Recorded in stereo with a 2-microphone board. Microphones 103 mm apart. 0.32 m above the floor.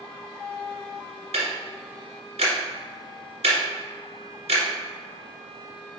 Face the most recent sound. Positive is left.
turn(degrees=-75)  # may be behind; listen again after turning